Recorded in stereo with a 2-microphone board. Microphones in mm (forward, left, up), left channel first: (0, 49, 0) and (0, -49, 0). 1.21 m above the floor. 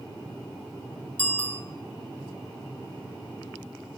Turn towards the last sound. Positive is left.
turn(degrees=15)  # may be behind; listen again after turning